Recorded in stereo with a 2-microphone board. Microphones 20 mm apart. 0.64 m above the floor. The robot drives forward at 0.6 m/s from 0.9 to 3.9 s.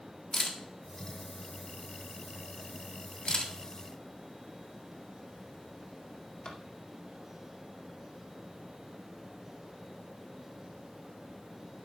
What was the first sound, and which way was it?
A camera shutter, 40° left (ahead or behind).